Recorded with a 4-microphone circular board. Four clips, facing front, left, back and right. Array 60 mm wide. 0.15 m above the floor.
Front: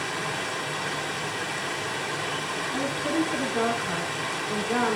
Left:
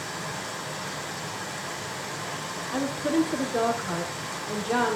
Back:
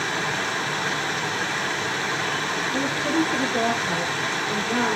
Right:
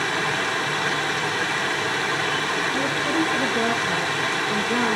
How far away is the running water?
About 1.7 m.